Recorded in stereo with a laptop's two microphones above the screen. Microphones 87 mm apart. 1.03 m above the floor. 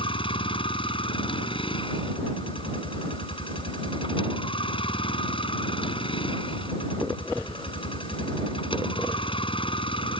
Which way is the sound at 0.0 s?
90° left.